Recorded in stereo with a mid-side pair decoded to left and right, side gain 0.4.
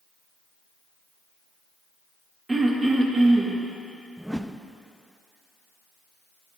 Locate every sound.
2.5 s throat clearing: 30° right, 1.7 m
4.2 s a whoosh: straight ahead, 0.5 m